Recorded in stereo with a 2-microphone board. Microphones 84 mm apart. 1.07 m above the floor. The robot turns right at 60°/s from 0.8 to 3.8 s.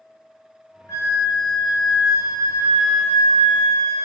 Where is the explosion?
I don't hear an explosion.